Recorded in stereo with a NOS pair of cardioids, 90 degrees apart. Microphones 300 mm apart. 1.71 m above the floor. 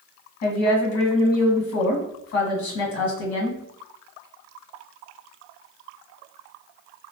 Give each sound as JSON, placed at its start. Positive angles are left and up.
{"t": 0.4, "sound": "a woman speaking", "azimuth_deg": 70, "distance_m": 1.3}